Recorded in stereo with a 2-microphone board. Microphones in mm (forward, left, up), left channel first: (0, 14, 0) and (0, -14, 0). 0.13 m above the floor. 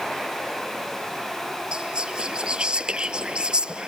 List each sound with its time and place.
1.7 s whispering: 35° right (ahead or behind)